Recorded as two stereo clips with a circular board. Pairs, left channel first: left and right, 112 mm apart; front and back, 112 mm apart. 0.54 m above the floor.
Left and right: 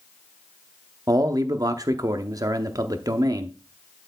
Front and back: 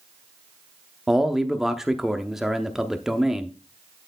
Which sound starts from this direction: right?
A man speaking, at 1.1 s.